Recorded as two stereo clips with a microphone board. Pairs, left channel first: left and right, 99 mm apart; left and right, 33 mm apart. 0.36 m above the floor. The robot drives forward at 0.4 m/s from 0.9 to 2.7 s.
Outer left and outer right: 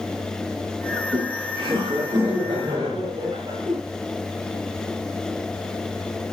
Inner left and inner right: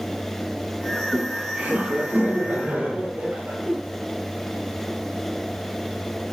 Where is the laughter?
35° right (ahead or behind), 8 m.